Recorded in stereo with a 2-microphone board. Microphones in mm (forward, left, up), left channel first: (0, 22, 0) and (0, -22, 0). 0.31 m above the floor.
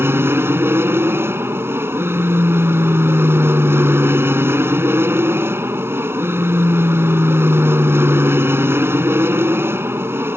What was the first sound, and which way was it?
An aircraft, 65° right (ahead or behind).